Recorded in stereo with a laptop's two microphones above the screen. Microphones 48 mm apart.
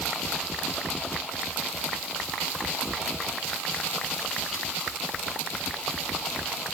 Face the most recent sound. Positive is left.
No sound to turn to.